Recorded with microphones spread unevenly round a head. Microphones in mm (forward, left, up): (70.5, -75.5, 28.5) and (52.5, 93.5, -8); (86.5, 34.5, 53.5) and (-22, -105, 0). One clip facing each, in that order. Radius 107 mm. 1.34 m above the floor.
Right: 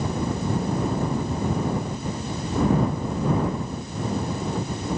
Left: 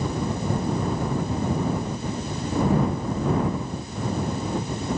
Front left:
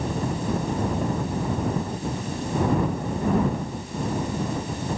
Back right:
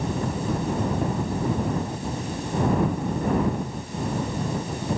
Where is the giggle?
No giggle in this recording.